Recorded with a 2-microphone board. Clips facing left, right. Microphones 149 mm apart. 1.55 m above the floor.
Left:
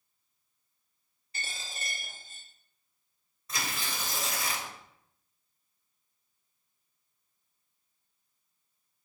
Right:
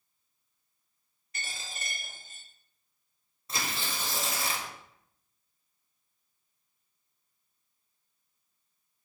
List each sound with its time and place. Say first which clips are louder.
1.3 s a dropped coin: even; 30° left (ahead or behind), 1.3 m
3.5 s tearing paper: right 1 dB; 30° right (ahead or behind), 0.9 m